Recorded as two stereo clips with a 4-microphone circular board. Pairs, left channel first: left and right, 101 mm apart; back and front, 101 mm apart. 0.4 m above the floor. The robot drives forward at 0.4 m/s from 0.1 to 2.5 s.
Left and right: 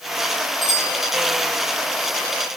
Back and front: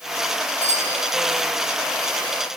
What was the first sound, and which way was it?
A bicycle bell, straight behind.